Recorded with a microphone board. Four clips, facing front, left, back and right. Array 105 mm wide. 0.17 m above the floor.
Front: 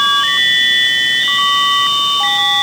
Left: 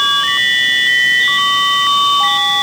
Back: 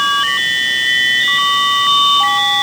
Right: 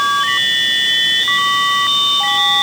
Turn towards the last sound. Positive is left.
No sound to turn to.